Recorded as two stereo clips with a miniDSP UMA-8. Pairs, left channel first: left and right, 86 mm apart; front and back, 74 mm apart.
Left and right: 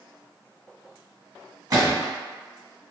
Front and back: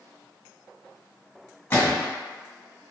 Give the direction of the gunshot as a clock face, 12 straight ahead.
2 o'clock.